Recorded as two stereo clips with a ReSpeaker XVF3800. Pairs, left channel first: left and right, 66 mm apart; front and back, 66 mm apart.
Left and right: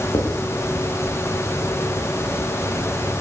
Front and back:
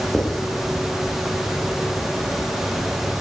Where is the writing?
75° left, 9 m.